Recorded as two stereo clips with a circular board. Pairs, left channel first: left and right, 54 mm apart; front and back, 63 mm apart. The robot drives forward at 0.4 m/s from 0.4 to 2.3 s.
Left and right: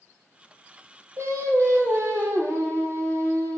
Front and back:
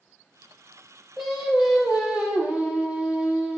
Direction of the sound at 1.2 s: 90° right.